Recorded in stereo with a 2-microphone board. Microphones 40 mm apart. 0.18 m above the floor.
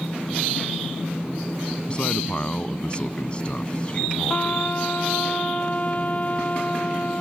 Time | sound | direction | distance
1.9 | a man speaking | 30° left (ahead or behind) | ?
4.3 | a trumpet | 35° left (ahead or behind) | ?